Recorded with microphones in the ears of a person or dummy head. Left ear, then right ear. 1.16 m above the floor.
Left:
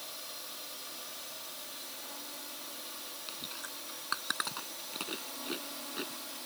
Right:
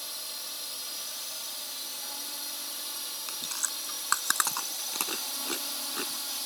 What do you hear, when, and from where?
0.0 s a drone: 30° right (ahead or behind); by 6.5 s 35° right (ahead or behind)
3.3 s chewing: 40° right (ahead or behind)